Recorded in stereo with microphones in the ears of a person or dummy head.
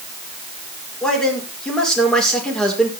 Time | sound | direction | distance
1.0 | a man speaking | 5° left (ahead or behind) | 6 m